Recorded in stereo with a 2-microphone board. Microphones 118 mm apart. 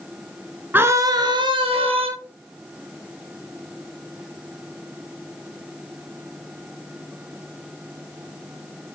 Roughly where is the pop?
I don't hear a pop.